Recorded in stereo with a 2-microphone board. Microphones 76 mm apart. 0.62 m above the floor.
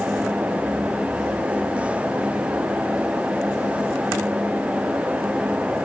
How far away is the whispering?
No whispering in this recording.